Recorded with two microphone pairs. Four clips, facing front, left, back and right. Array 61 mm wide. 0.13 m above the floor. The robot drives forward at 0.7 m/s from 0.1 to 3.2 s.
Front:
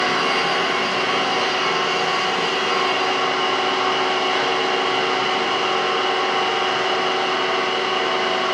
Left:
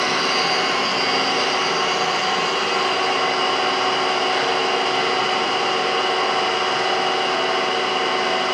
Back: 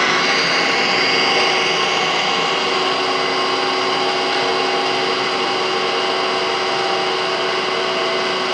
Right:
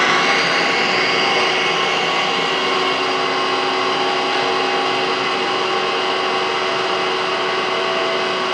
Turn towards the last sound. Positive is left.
turn(degrees=-165)